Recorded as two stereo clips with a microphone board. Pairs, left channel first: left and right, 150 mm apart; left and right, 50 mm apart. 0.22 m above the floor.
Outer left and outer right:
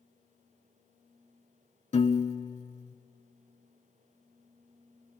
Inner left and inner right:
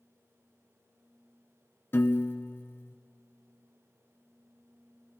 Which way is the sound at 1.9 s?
45° left (ahead or behind).